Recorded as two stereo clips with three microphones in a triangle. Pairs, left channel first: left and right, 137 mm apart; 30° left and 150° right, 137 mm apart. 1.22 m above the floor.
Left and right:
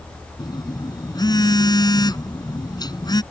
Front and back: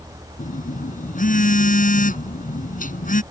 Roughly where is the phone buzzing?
Ahead left.